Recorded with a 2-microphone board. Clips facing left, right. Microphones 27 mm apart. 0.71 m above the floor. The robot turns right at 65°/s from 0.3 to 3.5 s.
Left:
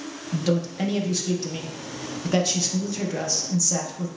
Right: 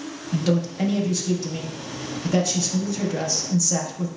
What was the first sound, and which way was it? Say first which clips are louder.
A man speaking: right 2 dB; 20° right.